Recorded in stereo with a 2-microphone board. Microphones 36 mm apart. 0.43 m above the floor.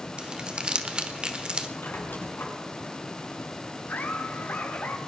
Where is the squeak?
75° left (ahead or behind), 3.5 m.